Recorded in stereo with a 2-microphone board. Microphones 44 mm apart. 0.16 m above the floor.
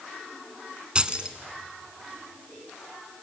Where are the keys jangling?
25° right (ahead or behind), 1.1 m.